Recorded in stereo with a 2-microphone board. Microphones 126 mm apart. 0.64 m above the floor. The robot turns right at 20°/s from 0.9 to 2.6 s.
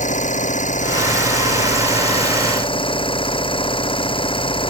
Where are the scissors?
I don't hear scissors.